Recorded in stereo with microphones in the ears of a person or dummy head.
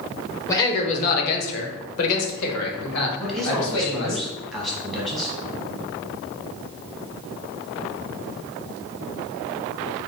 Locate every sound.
0.5 s a man speaking: 15° left (ahead or behind), 0.6 m; by 4.2 s 85° left, 2 m
3.2 s a man speaking: 5° right (ahead or behind), 0.9 m